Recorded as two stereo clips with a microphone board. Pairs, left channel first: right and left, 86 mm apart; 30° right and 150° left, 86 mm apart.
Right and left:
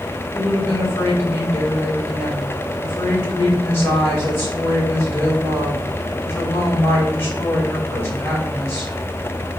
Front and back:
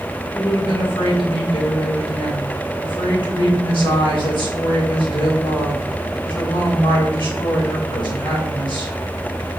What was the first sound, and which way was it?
A woman speaking, 30° right.